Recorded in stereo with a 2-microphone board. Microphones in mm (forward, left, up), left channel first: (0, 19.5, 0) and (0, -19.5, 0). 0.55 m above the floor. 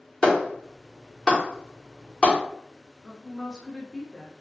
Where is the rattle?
I don't hear a rattle.